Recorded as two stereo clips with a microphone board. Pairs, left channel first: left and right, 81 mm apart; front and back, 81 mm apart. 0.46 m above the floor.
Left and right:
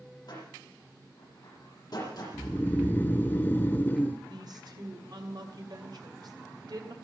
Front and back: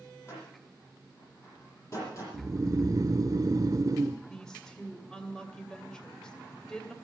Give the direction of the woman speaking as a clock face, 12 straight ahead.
3 o'clock.